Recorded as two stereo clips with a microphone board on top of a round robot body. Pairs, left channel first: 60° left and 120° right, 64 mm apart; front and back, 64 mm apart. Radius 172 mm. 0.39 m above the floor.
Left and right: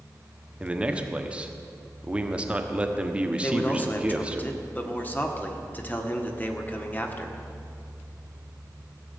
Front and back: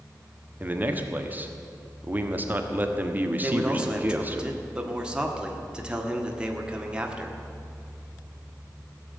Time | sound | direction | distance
0.6 | a man speaking | 165° right | 1.5 m
3.4 | a man speaking | 110° left | 1.8 m